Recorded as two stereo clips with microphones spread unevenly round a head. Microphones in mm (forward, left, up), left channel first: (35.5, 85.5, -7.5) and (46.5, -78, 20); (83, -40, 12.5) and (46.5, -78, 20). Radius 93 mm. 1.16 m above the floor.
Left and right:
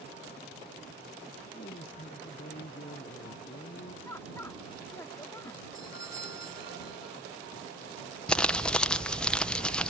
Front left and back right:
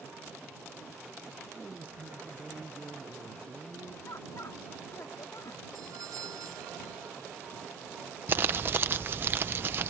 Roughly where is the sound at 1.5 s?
Behind left.